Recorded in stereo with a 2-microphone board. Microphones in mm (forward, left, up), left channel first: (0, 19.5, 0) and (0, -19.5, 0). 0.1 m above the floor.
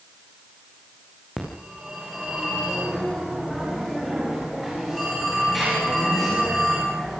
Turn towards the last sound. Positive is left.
turn(degrees=-5)  # may be behind; listen again after turning